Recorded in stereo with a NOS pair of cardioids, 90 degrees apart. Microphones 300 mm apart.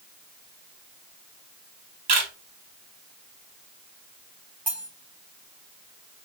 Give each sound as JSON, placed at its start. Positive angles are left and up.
{"t": 2.1, "sound": "a camera shutter", "azimuth_deg": -60, "distance_m": 2.0}
{"t": 4.7, "sound": "cutlery clinking", "azimuth_deg": -5, "distance_m": 1.4}